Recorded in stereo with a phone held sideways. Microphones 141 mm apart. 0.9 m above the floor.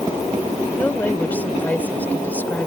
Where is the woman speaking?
10° left (ahead or behind).